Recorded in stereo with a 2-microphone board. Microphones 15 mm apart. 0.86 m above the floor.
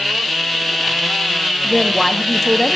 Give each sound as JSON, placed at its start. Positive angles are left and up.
{"t": 1.6, "sound": "a woman speaking", "side_deg": 10, "distance_m": 0.7}